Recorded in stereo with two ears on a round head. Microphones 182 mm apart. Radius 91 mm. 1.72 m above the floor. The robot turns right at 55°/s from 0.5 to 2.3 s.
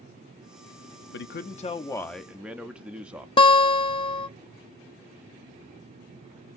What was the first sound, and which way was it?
A man speaking, 120° left.